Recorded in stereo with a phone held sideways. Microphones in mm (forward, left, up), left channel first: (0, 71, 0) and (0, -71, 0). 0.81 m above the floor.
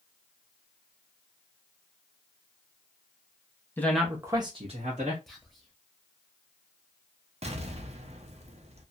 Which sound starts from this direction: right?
An explosion, at 7.4 s.